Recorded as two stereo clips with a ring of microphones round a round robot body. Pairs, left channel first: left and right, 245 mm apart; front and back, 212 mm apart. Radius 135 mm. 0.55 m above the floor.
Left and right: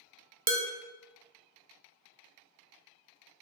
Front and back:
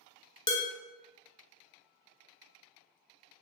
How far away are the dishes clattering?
About 0.7 m.